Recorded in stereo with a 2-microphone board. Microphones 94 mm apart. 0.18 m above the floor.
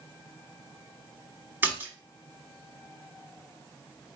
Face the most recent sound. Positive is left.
turn(degrees=-20)  # may be behind; listen again after turning